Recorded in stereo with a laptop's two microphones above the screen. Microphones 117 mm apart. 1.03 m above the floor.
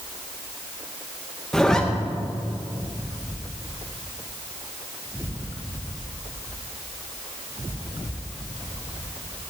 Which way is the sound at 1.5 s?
5° left (ahead or behind).